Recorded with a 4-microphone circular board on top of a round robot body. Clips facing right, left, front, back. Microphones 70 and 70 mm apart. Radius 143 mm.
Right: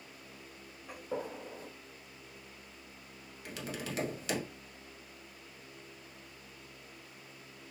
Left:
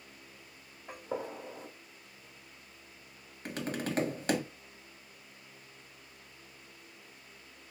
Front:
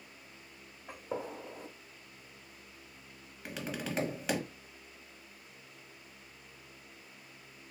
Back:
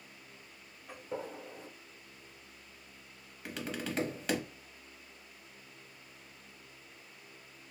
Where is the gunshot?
40° left, 0.5 m.